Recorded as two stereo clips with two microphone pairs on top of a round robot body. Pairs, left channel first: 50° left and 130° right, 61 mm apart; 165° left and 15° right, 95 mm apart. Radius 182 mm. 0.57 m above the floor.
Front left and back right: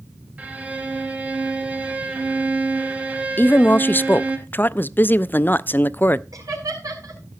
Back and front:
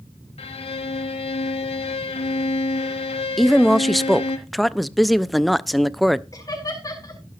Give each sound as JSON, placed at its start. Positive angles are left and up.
{"t": 0.4, "sound": "a violin", "azimuth_deg": 160, "distance_m": 0.6}
{"t": 3.4, "sound": "a woman speaking", "azimuth_deg": 80, "distance_m": 0.6}
{"t": 6.3, "sound": "laughter", "azimuth_deg": -145, "distance_m": 6.0}